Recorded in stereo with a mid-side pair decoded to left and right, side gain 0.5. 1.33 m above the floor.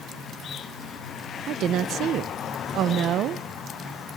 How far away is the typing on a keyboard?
No typing on a keyboard in this recording.